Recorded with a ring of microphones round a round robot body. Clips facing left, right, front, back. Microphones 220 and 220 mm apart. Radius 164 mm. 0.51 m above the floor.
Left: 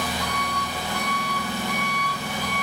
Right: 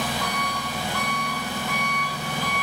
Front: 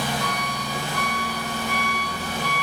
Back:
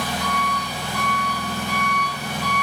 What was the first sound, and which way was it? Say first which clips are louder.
An engine running: even, back 1 dB; 45° right.